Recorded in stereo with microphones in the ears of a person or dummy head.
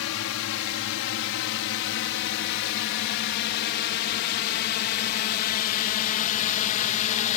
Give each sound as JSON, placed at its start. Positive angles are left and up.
{"t": 0.0, "sound": "a drone", "side_deg": 75}